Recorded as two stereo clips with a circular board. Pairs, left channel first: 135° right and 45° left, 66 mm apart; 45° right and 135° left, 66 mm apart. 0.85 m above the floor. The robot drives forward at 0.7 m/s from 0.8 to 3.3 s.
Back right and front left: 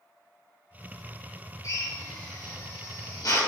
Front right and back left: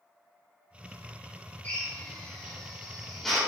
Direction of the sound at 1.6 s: 110° right.